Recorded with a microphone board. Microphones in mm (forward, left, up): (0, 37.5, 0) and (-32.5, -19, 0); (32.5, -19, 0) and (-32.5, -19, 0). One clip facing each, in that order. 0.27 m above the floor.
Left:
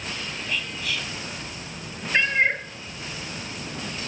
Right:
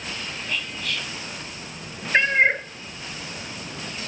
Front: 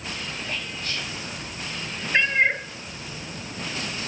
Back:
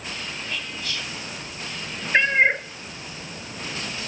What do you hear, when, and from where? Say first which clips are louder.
0.5 s whispering: even, even; 25° right, 2 m
2.1 s a cat meowing: right 3 dB, back 3 dB; 140° right, 0.7 m